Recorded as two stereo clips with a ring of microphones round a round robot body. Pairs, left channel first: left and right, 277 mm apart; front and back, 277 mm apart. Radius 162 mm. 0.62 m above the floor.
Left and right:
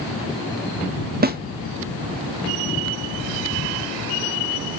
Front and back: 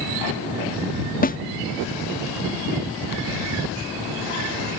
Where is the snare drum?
45° right.